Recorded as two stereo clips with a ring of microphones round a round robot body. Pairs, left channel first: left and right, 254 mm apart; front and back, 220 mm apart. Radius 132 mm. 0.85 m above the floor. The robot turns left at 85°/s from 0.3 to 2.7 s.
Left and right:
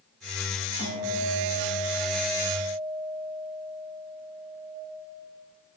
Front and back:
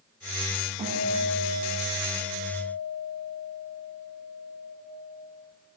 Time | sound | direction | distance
0.8 | a guitar | 120° left | 4 m